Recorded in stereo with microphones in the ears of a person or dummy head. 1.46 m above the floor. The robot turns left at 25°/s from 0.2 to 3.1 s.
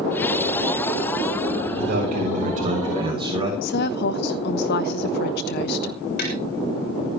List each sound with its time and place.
1.8 s a man speaking: 120° right, 7 m; by 3.5 s 155° right, 7 m
3.6 s a woman speaking: 60° left (ahead or behind), 1.0 m
6.2 s tapping: 55° left (ahead or behind), 6.5 m